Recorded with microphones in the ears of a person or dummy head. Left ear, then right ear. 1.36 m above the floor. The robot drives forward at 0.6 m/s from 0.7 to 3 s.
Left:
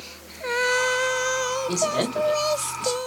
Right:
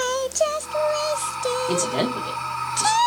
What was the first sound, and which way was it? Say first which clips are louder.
A man speaking: right 1 dB; 10° right (ahead or behind).